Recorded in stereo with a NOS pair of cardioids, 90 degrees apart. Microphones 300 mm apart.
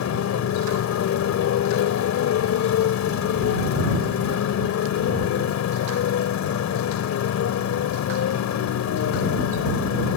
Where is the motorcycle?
65° left.